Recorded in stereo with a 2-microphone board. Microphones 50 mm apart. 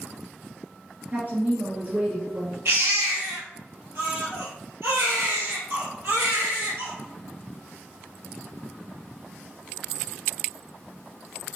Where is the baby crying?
55° right (ahead or behind), 1.8 m.